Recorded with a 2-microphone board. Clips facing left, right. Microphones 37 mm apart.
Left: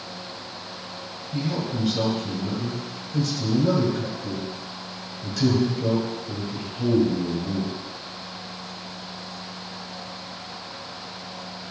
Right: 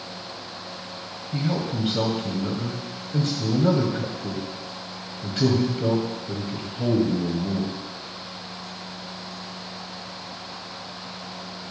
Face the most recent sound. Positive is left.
turn(degrees=-40)  # may be behind; listen again after turning